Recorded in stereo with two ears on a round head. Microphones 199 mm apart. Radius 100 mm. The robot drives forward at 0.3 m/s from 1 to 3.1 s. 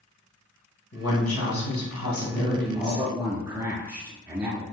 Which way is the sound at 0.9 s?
70° left (ahead or behind).